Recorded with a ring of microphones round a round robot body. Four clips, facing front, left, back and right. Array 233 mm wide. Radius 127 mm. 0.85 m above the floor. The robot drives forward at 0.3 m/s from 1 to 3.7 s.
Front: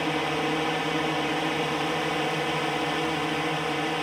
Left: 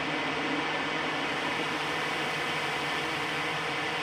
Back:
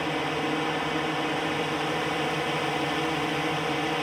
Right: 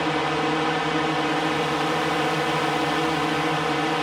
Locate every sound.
0.0 s a drone: 85° right; by 4.0 s 95° right